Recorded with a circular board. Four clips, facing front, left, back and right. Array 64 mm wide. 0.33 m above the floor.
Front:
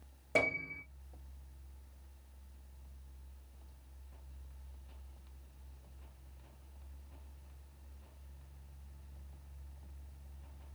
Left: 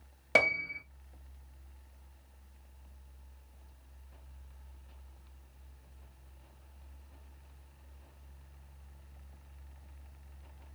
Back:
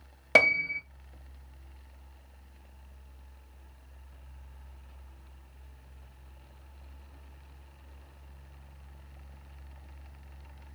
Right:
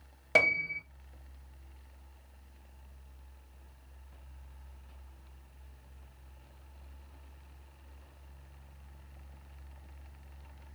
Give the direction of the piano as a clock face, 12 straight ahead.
6 o'clock.